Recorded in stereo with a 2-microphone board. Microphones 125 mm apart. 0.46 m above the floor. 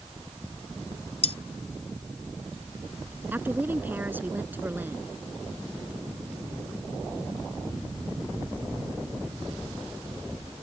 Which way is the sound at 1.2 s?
60° left (ahead or behind).